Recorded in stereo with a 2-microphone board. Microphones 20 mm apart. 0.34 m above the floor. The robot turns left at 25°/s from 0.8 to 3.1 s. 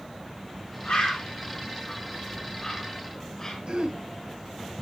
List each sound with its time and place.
0.8 s a bird: 70° left (ahead or behind), 5 m; by 3.6 s 20° left (ahead or behind), 5 m
3.7 s throat clearing: 55° right (ahead or behind), 2.5 m